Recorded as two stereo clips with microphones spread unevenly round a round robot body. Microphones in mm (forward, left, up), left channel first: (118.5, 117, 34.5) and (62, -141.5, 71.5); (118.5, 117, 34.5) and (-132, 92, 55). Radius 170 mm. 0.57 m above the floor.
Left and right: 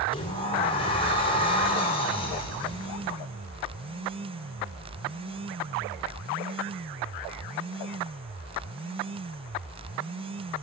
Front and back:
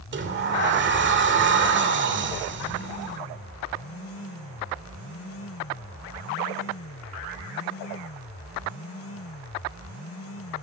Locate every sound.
0.1 s a sliding door: 145° left, 2.5 m